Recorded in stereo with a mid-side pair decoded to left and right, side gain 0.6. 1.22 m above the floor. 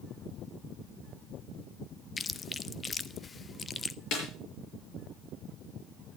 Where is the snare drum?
65° left, 6 m.